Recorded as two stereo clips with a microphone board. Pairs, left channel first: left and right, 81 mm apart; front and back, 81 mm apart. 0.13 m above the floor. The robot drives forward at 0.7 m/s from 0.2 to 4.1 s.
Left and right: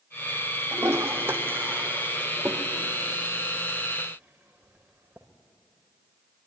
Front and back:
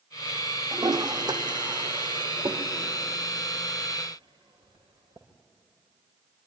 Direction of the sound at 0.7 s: 150° right.